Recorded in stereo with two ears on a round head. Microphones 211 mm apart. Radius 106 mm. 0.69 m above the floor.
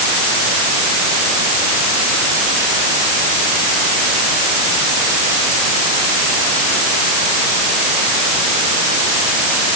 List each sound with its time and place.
Only background noise.